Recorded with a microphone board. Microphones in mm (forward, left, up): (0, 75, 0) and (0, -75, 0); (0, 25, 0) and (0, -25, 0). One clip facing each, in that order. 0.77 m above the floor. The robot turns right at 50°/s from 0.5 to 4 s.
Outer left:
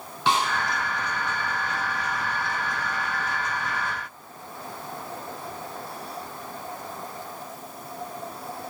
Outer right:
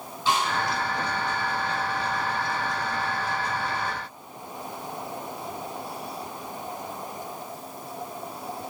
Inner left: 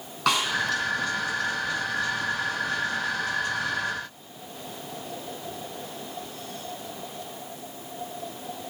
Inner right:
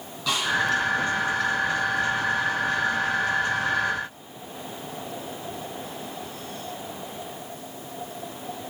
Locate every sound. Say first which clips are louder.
0.3 s a snare drum: outer left 1 dB, inner left 3 dB; 75° left (ahead or behind), 3.5 m